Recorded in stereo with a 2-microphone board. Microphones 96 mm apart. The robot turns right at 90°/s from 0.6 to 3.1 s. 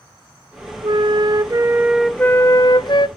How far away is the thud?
I don't hear a thud.